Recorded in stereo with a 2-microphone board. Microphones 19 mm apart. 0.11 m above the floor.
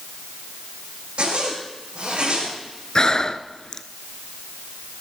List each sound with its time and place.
1.2 s a zipper: 65° right (ahead or behind), 6 m
3.0 s breathing: 35° left (ahead or behind), 0.6 m